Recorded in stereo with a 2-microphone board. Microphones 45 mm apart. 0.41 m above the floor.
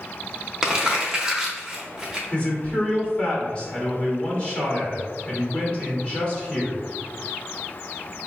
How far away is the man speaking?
About 1.5 m.